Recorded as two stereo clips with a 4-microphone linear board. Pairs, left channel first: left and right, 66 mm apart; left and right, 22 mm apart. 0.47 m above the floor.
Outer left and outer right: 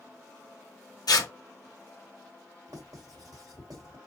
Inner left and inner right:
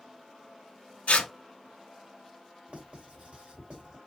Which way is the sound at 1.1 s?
80° left.